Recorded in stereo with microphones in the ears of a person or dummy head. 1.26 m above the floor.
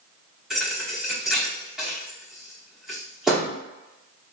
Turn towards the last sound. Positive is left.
turn(degrees=-5)  # may be behind; listen again after turning